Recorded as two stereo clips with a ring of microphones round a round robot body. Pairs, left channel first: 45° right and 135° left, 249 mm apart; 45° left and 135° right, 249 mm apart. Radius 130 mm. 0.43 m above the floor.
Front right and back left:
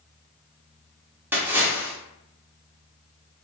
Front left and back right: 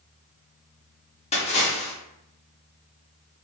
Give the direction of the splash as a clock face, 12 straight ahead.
10 o'clock.